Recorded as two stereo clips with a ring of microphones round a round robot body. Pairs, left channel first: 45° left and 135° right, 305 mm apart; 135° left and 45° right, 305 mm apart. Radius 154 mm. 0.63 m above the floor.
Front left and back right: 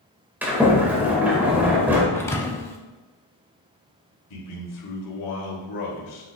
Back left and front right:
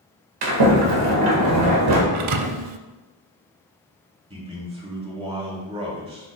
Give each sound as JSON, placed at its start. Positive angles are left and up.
{"t": 0.4, "sound": "a sliding door", "azimuth_deg": -50, "distance_m": 1.7}
{"t": 2.1, "sound": "a thud", "azimuth_deg": -35, "distance_m": 0.6}
{"t": 4.3, "sound": "a man speaking", "azimuth_deg": 25, "distance_m": 2.5}